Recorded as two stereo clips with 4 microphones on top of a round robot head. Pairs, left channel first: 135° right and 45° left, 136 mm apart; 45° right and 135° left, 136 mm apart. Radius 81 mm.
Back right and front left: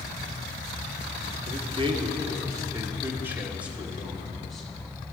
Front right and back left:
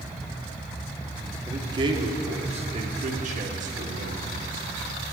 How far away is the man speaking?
About 1.7 m.